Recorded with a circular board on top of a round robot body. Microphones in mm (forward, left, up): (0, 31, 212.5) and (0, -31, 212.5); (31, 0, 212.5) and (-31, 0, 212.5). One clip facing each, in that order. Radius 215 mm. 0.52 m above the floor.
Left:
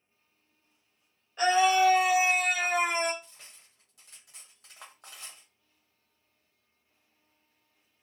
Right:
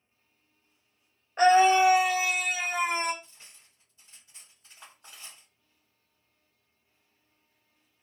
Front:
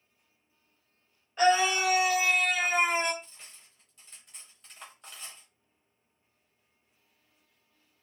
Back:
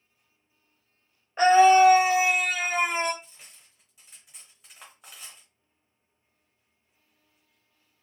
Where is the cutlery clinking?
95° left, 1.1 m.